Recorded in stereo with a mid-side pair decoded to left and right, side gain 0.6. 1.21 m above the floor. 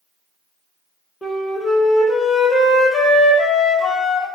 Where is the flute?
25° left, 0.8 m.